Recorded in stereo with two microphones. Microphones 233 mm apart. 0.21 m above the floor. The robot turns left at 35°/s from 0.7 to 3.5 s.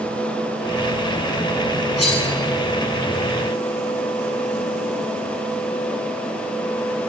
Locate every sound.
2.0 s cutlery clinking: 70° left (ahead or behind), 3 m; by 2.2 s 65° left (ahead or behind), 3 m